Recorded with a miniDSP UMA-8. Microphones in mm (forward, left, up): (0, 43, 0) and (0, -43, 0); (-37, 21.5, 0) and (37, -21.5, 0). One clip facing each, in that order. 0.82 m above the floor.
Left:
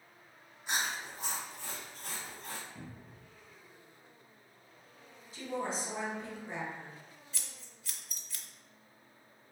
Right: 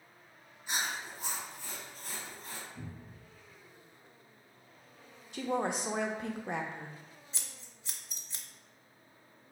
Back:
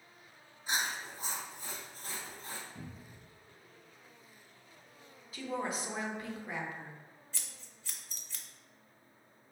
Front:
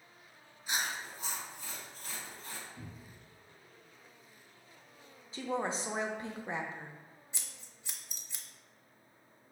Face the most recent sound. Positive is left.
turn(degrees=-75)